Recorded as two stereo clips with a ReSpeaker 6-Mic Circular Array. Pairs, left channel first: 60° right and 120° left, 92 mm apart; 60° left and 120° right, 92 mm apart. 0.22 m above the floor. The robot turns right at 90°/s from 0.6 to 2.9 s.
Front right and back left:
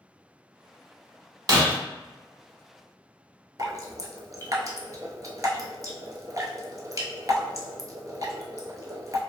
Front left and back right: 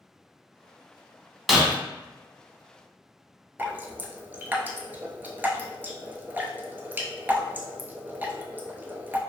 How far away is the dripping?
About 0.5 m.